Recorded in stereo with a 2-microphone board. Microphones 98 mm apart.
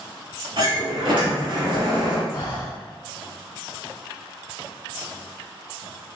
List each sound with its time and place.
0.6 s a sliding door: 65° right (ahead or behind), 1.5 m
2.3 s breathing: 50° left (ahead or behind), 0.8 m